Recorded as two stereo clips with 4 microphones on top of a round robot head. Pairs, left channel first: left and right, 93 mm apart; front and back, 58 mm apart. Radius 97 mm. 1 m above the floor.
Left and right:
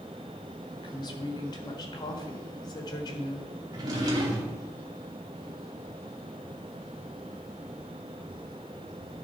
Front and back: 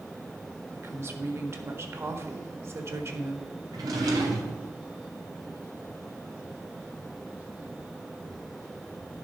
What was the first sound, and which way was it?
A woman speaking, 135° left.